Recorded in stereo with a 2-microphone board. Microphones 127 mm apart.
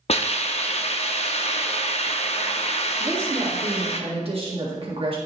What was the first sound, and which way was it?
A hiss, 50° left (ahead or behind).